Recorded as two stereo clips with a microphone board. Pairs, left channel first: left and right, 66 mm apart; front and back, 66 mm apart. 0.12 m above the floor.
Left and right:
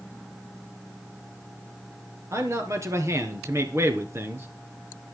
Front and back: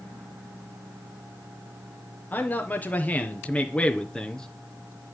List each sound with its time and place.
2.3 s a man speaking: 55° right, 3 m; by 4.5 s 75° right, 2.0 m